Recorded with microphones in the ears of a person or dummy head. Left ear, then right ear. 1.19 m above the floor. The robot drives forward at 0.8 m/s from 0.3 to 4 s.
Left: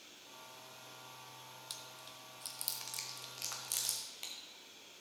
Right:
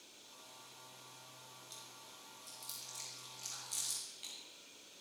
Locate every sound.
1.7 s chewing: 55° left (ahead or behind), 1.5 m; by 4.3 s 40° left (ahead or behind), 2 m